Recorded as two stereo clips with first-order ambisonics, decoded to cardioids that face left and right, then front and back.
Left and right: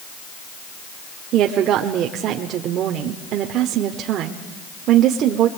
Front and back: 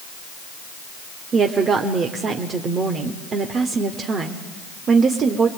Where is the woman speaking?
125° right, 1.2 m.